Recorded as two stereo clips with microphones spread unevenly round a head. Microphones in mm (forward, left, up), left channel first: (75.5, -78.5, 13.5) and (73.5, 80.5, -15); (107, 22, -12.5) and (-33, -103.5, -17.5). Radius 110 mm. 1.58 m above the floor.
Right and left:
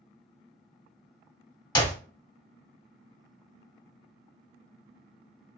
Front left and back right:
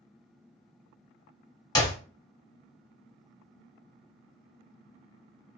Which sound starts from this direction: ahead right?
A clap, at 1.8 s.